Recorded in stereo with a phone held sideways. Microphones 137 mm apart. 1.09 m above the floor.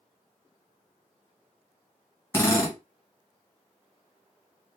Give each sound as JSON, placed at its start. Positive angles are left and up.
{"t": 2.3, "sound": "a drill", "side_deg": 20, "distance_m": 0.9}